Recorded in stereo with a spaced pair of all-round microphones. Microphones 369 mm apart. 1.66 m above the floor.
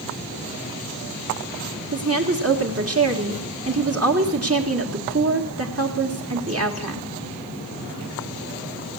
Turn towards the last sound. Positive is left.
turn(degrees=-40)  # may be behind; listen again after turning